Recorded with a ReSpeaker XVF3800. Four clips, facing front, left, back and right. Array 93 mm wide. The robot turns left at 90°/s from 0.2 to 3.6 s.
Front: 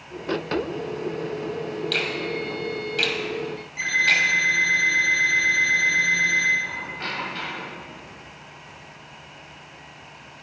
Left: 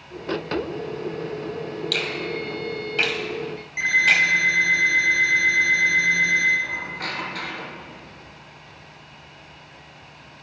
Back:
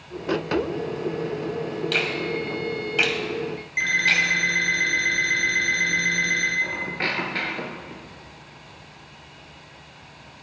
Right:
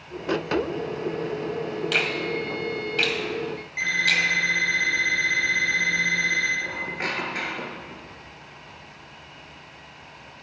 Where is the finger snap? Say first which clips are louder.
Right 2 dB, back 2 dB; 110° right, 0.9 m; by 4.3 s 100° left, 0.9 m.